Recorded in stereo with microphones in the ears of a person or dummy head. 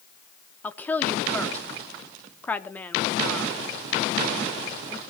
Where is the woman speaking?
10° left (ahead or behind), 1.4 m.